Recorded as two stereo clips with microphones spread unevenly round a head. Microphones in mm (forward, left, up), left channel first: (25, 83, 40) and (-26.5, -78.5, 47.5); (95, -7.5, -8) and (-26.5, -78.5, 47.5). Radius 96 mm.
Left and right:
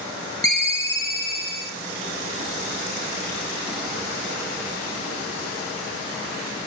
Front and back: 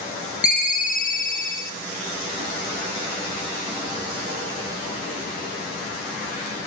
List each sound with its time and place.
0.4 s a ringtone: straight ahead, 0.6 m